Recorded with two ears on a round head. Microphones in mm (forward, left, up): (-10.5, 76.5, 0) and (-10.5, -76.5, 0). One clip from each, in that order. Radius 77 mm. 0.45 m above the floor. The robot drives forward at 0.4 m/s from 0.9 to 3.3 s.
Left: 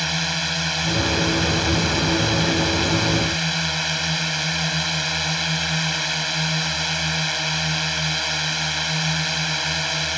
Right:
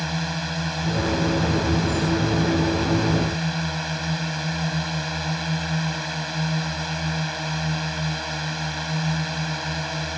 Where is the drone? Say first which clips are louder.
Left 6 dB; 60° left (ahead or behind).